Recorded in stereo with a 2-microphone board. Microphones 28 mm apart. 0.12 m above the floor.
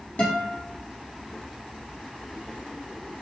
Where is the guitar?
65° left (ahead or behind), 2 m.